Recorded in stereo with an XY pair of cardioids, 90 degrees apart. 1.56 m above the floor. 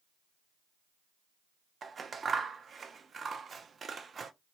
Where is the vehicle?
I don't hear a vehicle.